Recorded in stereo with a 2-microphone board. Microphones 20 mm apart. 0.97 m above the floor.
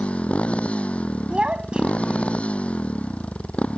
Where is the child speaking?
55° right (ahead or behind).